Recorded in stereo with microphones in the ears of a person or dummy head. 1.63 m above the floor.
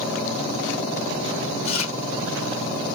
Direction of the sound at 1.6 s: 35° left (ahead or behind).